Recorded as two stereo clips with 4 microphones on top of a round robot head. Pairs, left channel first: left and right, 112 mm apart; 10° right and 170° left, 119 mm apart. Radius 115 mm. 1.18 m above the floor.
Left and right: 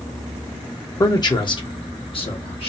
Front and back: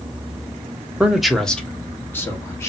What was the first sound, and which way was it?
A man speaking, 100° left.